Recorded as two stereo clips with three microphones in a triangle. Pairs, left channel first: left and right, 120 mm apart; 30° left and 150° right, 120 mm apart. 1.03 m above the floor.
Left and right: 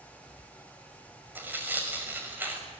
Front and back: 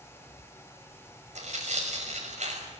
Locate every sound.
1.4 s tearing paper: 165° right, 6 m